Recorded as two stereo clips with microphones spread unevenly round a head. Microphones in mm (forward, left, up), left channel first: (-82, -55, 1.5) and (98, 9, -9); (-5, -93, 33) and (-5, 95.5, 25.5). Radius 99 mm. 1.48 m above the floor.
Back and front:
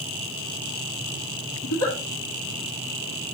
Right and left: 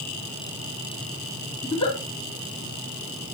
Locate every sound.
1.6 s a giggle: 155° right, 2.5 m